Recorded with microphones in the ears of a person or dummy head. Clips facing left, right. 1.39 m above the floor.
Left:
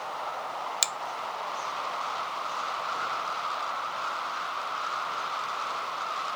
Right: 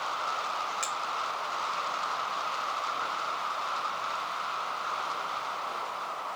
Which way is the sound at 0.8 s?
55° left (ahead or behind).